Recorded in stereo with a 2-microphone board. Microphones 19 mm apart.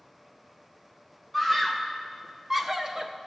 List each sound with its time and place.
1.3 s a scream: centre (ahead or behind), 1.9 m; by 3.1 s 35° right (ahead or behind), 1.0 m